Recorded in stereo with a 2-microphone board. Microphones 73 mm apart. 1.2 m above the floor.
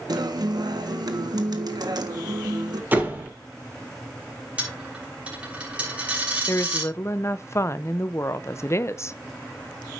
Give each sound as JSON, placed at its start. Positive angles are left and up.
{"t": 0.1, "sound": "a guitar", "side_deg": -65, "distance_m": 1.3}
{"t": 2.9, "sound": "a door slam", "side_deg": -25, "distance_m": 3.0}
{"t": 4.6, "sound": "a dropped coin", "side_deg": -15, "distance_m": 6.0}
{"t": 6.5, "sound": "a woman speaking", "side_deg": 40, "distance_m": 0.6}